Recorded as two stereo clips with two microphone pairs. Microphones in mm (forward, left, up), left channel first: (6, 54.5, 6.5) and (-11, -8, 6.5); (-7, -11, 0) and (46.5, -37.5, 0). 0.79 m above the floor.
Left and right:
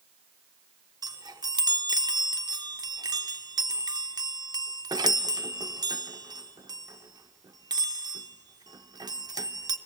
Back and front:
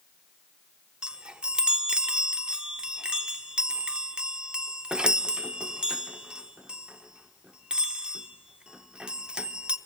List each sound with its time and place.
1.0 s a chime: 100° right, 0.7 m